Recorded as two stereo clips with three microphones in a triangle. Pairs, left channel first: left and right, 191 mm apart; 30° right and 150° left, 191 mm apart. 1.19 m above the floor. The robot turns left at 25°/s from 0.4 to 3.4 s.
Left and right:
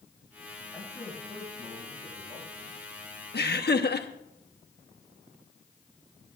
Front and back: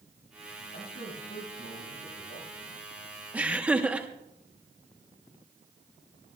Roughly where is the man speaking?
Ahead.